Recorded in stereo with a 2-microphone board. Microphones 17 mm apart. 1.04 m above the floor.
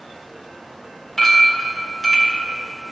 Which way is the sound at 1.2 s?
30° left (ahead or behind).